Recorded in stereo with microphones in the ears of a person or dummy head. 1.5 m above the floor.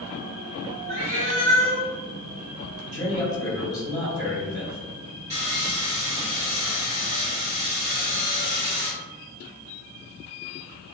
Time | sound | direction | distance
0.9 | a cat meowing | 50° right (ahead or behind) | 1.3 m
2.8 | a man speaking | 5° right (ahead or behind) | 1.8 m
5.3 | sawing | 35° right (ahead or behind) | 0.7 m